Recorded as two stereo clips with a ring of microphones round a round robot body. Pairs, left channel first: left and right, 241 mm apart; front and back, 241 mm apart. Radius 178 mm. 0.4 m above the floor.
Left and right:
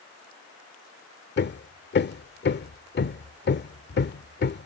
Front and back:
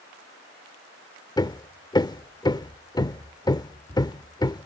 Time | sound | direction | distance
1.4 | hammering | 70° left | ?